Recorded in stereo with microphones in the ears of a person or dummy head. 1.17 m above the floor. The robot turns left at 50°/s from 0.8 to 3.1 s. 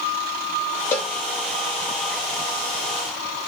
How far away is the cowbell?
About 0.6 m.